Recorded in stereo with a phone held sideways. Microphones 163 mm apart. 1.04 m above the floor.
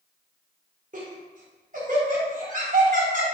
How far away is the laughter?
About 0.9 m.